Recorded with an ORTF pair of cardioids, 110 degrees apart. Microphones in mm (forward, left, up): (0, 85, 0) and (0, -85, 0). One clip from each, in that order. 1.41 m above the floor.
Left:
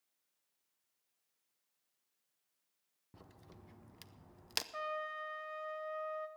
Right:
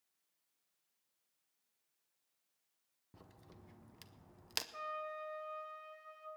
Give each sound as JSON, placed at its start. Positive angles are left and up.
{"t": 3.1, "sound": "a crack", "azimuth_deg": 10, "distance_m": 0.6}
{"t": 4.7, "sound": "a trumpet", "azimuth_deg": 35, "distance_m": 1.6}